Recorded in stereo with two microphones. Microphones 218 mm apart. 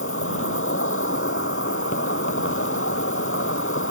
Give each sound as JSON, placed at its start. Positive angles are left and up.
{"t": 0.0, "sound": "an insect", "side_deg": 80}